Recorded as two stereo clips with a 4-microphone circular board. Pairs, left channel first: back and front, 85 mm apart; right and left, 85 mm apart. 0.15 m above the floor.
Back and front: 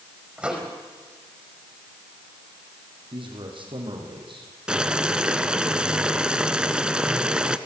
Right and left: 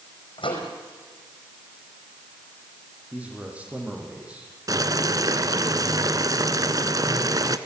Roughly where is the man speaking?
Ahead.